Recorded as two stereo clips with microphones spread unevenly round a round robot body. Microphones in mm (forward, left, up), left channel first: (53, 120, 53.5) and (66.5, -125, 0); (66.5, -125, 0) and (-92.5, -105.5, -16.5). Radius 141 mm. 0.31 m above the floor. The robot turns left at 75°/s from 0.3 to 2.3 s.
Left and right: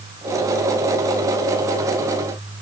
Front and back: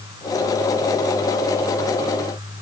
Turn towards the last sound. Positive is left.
No sound to turn to.